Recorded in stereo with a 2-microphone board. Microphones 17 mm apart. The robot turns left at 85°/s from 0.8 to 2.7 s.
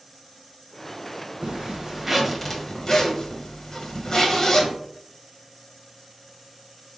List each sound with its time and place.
1.4 s a zipper: 105° right, 1.0 m; by 4.7 s 150° left, 1.0 m